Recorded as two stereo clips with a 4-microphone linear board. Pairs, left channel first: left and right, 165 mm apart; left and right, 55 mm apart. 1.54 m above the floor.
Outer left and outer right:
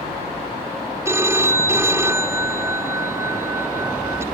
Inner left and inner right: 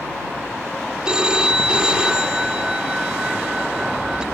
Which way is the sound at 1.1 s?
15° right (ahead or behind).